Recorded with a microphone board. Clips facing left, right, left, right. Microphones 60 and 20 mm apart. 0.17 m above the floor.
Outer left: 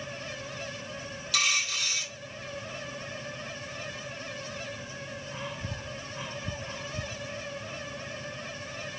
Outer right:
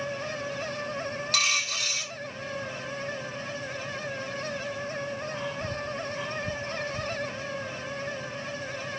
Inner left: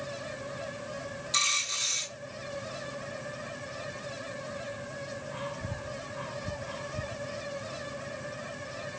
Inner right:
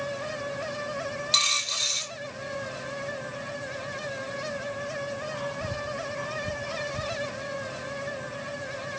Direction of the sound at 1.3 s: 45° right (ahead or behind).